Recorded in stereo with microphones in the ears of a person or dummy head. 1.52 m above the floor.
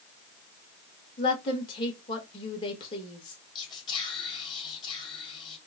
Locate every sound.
1.2 s a woman speaking: 30° left (ahead or behind), 1.6 m
3.5 s whispering: 30° left (ahead or behind), 2 m